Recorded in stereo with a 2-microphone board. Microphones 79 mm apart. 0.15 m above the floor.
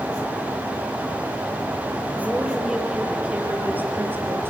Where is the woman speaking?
5° right (ahead or behind), 3.5 m; by 4.5 s 30° right (ahead or behind), 4 m.